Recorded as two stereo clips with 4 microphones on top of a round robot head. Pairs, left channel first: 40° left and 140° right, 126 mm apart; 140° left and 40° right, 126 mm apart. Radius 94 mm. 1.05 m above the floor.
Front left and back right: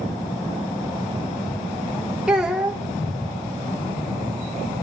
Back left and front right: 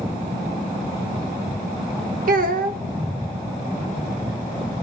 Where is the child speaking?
55° right, 0.5 m.